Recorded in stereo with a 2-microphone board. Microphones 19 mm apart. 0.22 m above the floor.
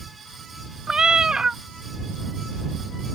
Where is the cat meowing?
40° right (ahead or behind).